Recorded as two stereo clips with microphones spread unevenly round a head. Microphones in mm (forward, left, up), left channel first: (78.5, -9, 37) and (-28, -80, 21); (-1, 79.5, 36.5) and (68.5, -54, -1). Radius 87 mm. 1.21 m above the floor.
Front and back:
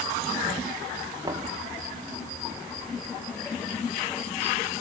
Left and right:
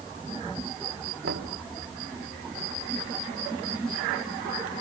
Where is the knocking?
80° right, 1.6 m.